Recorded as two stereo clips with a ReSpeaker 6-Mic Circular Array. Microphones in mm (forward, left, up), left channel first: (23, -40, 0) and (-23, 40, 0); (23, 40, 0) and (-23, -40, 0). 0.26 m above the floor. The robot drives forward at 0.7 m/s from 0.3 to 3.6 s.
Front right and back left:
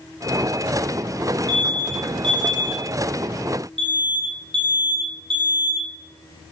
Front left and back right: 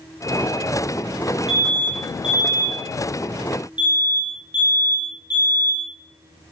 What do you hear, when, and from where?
1.5 s an alarm: 80° left, 7 m; by 5.8 s 95° left, 7 m